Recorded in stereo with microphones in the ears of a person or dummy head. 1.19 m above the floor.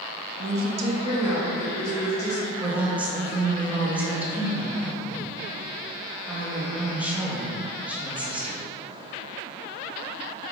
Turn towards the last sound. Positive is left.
turn(degrees=-10)  # may be behind; listen again after turning